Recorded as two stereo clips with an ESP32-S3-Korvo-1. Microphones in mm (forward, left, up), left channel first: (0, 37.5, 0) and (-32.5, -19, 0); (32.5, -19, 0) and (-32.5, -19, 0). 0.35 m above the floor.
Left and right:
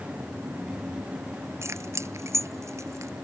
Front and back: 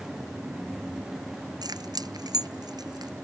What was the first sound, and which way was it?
Keys jangling, 170° right.